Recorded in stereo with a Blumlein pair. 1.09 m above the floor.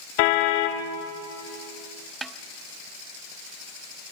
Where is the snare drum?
15° right, 1.1 m.